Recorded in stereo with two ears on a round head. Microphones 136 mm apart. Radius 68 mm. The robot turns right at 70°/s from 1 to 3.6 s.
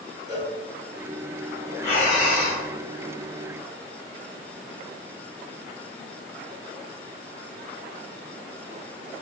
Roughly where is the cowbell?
Left.